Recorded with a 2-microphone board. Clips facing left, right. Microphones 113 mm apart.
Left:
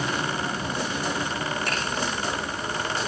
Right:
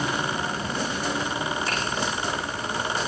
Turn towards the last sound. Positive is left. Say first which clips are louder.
# even
turn(degrees=75)  # may be behind; listen again after turning